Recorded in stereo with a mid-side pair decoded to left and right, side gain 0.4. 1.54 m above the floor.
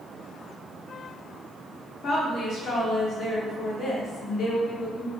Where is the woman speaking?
65° left, 1.0 m.